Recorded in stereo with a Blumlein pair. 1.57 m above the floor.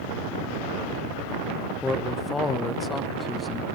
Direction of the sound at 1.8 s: 10° left.